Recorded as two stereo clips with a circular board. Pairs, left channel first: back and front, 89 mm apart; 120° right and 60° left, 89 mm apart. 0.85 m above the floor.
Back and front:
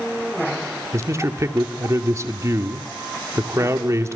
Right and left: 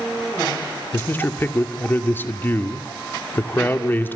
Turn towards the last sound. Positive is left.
turn(degrees=-55)